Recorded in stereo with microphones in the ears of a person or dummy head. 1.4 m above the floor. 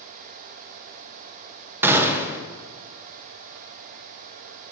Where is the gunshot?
10° right (ahead or behind), 0.6 m.